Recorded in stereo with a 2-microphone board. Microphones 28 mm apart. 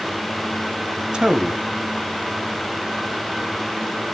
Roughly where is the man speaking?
Right.